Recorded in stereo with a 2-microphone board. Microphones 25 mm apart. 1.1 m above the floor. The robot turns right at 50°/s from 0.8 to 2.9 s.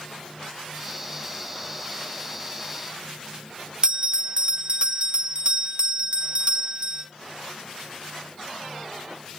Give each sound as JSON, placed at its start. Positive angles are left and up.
{"t": 3.8, "sound": "a bell", "side_deg": -40, "distance_m": 0.7}